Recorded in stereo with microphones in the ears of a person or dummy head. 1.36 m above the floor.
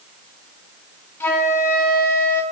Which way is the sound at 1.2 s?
15° left (ahead or behind).